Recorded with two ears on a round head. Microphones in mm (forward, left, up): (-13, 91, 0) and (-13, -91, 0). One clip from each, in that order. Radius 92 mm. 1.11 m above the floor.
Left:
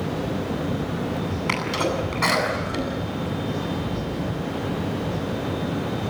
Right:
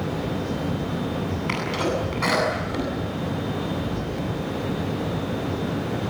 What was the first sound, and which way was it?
A sneeze, 20° left (ahead or behind).